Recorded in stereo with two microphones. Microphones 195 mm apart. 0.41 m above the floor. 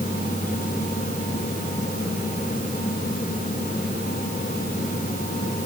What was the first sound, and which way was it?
Only background noise.